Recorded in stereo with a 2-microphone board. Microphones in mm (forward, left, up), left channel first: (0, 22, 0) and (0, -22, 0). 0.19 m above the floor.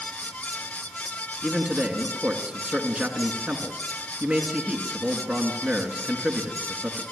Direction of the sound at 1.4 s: 30° right (ahead or behind).